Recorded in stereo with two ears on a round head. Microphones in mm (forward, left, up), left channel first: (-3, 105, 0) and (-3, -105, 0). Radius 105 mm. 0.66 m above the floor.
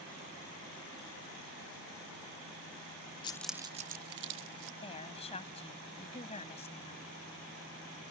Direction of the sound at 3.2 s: 20° left (ahead or behind).